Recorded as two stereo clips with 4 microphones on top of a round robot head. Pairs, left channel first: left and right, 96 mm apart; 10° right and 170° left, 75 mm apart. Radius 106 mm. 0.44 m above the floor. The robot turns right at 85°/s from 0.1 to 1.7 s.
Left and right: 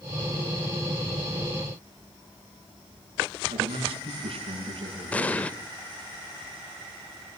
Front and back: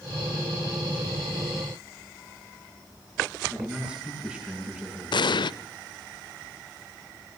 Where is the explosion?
15° left, 0.5 m.